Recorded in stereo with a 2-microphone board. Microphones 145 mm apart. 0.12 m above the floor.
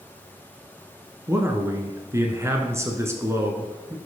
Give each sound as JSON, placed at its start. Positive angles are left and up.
{"t": 1.3, "sound": "a man speaking", "side_deg": -20, "distance_m": 1.3}